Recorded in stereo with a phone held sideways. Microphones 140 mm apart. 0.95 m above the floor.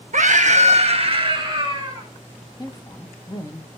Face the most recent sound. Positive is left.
turn(degrees=25)  # may be behind; listen again after turning